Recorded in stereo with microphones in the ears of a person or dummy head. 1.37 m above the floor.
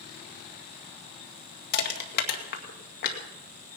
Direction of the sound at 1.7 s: 60° left (ahead or behind).